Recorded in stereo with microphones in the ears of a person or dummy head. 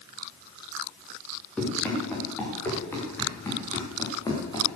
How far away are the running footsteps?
About 7 m.